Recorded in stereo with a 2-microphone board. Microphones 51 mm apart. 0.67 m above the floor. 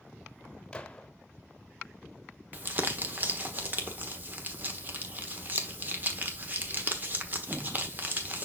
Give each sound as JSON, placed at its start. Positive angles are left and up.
{"t": 0.7, "sound": "a gunshot", "side_deg": 15, "distance_m": 0.8}
{"t": 2.5, "sound": "crumpling", "side_deg": -35, "distance_m": 1.2}